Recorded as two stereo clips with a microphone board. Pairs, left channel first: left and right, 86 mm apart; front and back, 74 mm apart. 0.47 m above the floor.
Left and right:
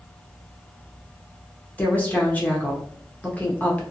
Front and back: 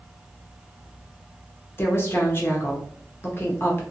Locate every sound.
1.8 s a woman speaking: 30° left, 0.8 m